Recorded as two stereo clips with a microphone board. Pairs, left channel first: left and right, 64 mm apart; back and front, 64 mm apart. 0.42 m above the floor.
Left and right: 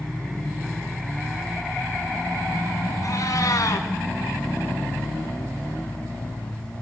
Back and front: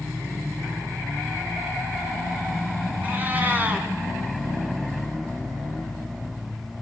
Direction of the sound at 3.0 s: 60° left.